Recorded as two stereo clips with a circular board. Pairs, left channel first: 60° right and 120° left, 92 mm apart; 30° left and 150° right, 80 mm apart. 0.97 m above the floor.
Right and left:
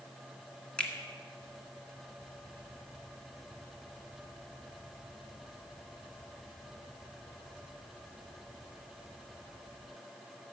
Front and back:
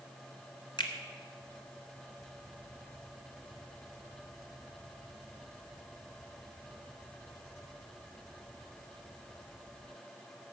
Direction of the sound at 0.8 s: 20° left.